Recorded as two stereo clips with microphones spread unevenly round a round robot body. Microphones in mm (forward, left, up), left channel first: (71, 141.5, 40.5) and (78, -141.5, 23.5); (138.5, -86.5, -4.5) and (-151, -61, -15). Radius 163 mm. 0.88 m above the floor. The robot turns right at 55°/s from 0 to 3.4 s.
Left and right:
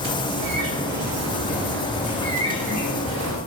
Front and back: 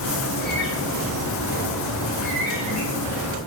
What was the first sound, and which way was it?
A bird, 70° right.